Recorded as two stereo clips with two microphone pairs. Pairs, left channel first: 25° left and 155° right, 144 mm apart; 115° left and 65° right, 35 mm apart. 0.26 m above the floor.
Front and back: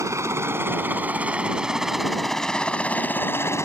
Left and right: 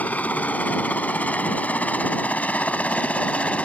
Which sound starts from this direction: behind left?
A helicopter, at 0.0 s.